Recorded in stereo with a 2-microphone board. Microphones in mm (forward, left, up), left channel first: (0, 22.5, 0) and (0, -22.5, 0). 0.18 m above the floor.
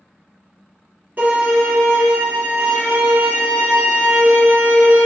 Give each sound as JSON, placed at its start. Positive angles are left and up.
{"t": 1.2, "sound": "a violin", "side_deg": -45, "distance_m": 1.8}